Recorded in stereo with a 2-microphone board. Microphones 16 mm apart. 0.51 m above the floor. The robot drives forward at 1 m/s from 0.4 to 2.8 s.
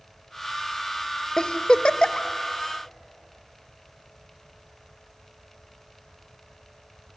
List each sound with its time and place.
1.4 s a giggle: 50° left (ahead or behind), 0.8 m; by 2.3 s 60° left (ahead or behind), 0.7 m